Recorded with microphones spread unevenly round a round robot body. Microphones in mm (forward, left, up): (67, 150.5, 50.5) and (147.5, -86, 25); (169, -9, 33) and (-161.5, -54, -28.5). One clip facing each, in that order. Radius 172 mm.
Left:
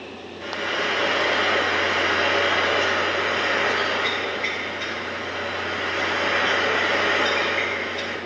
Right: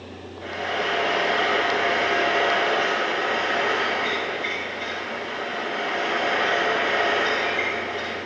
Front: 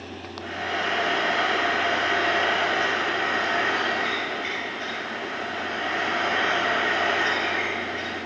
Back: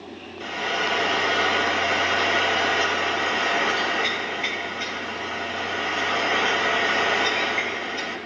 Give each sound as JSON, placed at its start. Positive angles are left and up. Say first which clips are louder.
{"t": 0.4, "sound": "frying", "louder": "even, back 2 dB", "azimuth_deg": 180, "distance_m": 3.0}